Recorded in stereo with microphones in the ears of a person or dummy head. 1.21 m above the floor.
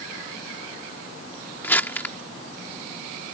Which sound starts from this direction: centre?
Crumpling, at 1.6 s.